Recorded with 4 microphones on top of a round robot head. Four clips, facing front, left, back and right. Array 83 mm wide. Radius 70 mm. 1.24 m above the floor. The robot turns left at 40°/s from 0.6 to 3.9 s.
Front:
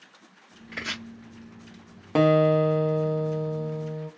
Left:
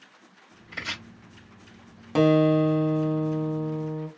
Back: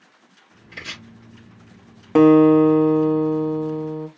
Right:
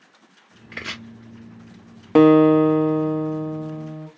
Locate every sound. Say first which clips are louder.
0.7 s chopping: right 2 dB, front 2 dB; 65° right, 0.9 m; by 1.0 s 75° right, 0.9 m
2.1 s a guitar: right 7 dB, back 8 dB; 105° right, 0.6 m; by 4.1 s 175° right, 0.6 m